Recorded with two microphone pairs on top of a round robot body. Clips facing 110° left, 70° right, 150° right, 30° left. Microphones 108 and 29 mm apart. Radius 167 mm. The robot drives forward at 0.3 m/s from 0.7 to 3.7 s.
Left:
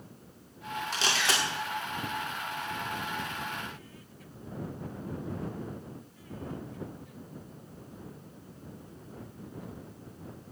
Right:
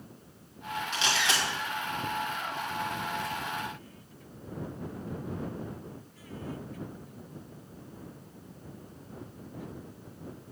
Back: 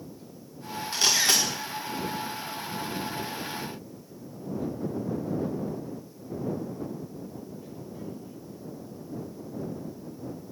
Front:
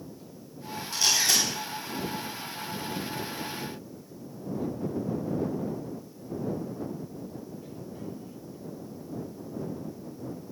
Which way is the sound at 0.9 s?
165° left.